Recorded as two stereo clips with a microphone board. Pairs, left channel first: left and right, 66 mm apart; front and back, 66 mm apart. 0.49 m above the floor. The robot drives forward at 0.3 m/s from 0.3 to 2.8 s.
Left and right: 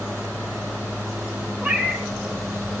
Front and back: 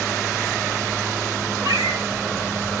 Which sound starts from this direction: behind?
A cat meowing, at 1.6 s.